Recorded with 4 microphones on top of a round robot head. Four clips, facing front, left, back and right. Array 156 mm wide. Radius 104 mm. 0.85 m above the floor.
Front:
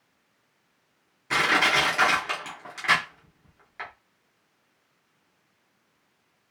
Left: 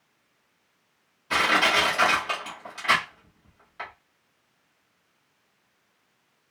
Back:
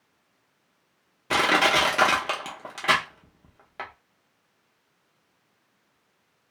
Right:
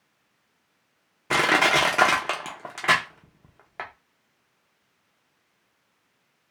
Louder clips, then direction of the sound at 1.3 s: Right 2 dB, back 2 dB; 120° right.